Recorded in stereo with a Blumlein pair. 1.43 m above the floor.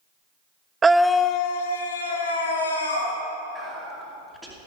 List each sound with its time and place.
0.8 s a scream: 15° right, 0.5 m; by 3.1 s 75° left, 2.5 m
3.5 s whispering: 5° right, 2.5 m